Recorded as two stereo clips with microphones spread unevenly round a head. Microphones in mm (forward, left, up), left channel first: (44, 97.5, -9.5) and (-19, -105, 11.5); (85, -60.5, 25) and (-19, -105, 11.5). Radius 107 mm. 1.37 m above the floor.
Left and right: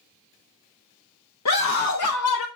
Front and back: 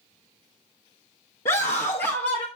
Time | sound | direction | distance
1.4 | a scream | 65° left | 1.1 m